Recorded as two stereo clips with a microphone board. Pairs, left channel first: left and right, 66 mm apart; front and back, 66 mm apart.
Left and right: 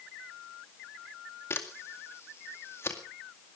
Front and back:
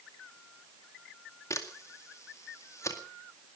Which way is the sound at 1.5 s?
40° left.